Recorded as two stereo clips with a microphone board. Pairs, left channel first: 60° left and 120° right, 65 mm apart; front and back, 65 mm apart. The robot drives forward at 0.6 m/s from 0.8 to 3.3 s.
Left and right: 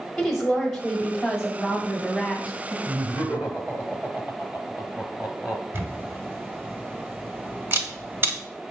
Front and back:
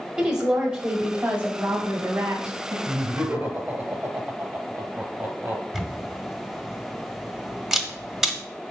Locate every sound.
0.2 s a woman speaking: 135° left, 1.3 m; by 2.8 s 165° left, 2 m
2.9 s laughter: 175° right, 1.0 m; by 5.6 s straight behind, 1.2 m
5.7 s a camera shutter: 105° right, 1.1 m